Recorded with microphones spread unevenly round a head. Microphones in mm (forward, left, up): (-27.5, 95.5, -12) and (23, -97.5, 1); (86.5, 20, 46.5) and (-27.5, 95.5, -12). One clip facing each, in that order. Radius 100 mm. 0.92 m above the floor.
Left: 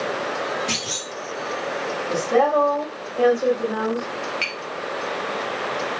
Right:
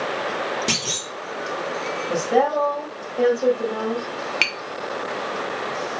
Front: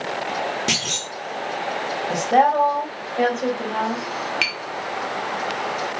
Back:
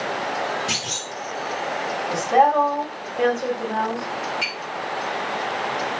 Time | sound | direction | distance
0.7 | a clunk | 45° right | 1.0 m
2.1 | a woman speaking | 15° left | 1.4 m
4.4 | tapping | 75° right | 0.5 m